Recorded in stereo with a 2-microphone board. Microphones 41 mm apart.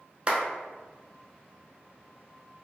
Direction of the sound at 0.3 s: 25° right (ahead or behind).